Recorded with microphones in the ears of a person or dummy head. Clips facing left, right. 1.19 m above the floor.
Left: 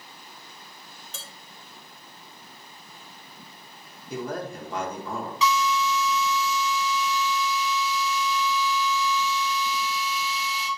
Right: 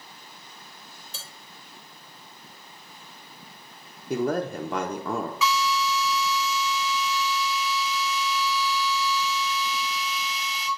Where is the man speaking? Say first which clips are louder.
Right 6 dB; 40° right (ahead or behind), 0.6 m.